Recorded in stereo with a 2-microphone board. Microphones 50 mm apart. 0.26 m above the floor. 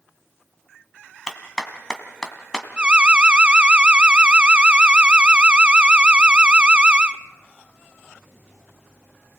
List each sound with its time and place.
1.3 s a clap: 10° left (ahead or behind), 2.0 m
2.8 s an alarm: 20° right (ahead or behind), 0.6 m